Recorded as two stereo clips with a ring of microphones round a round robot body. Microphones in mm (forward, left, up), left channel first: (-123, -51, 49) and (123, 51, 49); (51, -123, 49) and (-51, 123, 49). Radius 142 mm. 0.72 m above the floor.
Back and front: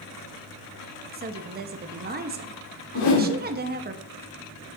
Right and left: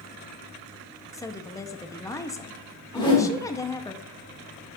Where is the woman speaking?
5° left, 0.6 m.